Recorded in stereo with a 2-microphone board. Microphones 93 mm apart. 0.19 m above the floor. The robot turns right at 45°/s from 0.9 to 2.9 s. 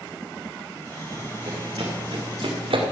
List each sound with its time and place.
1.1 s running footsteps: 45° right (ahead or behind), 3 m; by 2.8 s 80° right, 2.5 m